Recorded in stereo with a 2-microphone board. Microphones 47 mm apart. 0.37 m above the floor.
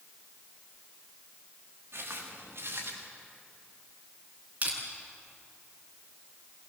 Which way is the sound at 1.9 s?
70° right (ahead or behind).